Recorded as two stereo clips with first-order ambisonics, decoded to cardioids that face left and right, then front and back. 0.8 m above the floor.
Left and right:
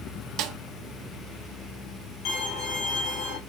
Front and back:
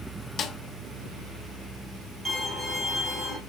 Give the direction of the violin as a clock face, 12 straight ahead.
9 o'clock.